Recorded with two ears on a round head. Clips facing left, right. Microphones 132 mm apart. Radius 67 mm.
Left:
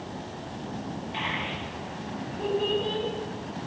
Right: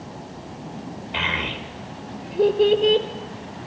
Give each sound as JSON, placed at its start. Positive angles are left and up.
{"t": 1.1, "sound": "a child speaking", "side_deg": -75, "distance_m": 1.3}